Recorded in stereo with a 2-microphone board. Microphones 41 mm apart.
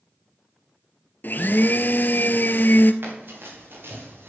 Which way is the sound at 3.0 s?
55° right (ahead or behind).